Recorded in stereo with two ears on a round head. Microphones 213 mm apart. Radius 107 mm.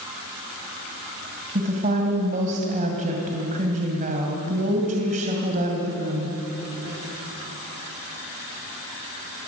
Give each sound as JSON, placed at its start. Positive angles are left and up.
{"t": 1.6, "sound": "a woman speaking", "side_deg": -35, "distance_m": 2.5}